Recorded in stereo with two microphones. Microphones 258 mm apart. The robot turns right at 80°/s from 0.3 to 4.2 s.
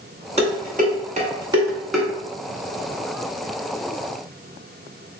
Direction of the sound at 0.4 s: 25° right (ahead or behind).